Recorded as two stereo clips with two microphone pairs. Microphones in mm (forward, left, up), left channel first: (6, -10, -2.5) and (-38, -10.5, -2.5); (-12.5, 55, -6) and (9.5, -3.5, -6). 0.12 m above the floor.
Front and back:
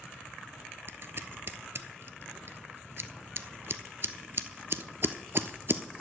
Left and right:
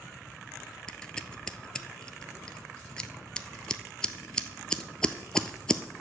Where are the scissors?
175° right, 0.5 m.